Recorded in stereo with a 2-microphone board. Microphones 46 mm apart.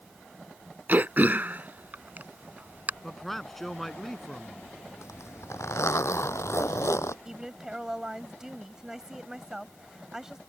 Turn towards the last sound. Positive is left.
turn(degrees=-15)  # may be behind; listen again after turning